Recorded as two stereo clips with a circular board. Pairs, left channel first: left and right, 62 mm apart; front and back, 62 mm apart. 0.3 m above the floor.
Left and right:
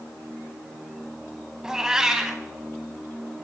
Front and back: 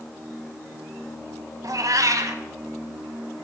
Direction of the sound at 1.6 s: 170° right.